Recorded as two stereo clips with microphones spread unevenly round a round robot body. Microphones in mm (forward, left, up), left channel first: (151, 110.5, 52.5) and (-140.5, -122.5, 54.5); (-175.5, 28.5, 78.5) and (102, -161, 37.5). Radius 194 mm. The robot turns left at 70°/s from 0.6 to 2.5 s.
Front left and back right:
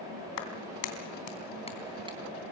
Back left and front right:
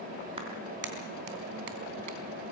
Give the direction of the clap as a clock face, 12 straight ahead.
11 o'clock.